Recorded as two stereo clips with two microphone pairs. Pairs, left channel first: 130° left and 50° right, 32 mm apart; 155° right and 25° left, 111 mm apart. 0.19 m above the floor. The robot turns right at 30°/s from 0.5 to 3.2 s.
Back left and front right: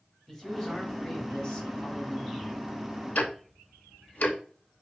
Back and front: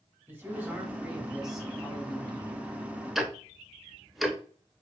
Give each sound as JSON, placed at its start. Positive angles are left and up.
{"t": 0.3, "sound": "a man speaking", "azimuth_deg": 75, "distance_m": 1.3}
{"t": 3.1, "sound": "ticking", "azimuth_deg": 115, "distance_m": 0.7}